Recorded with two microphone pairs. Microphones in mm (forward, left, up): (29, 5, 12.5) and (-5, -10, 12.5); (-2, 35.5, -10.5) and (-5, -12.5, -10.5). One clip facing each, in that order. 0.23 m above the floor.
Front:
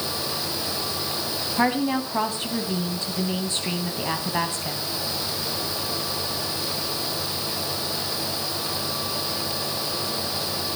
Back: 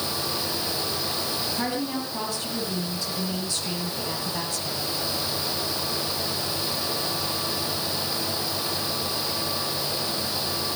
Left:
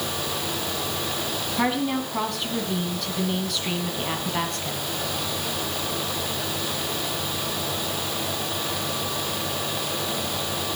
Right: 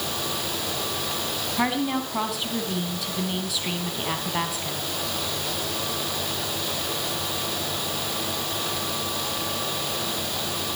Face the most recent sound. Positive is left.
turn(degrees=-10)